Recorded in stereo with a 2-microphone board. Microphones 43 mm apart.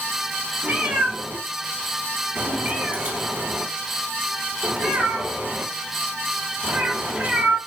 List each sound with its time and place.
0.6 s a cat meowing: 30° right (ahead or behind), 1.6 m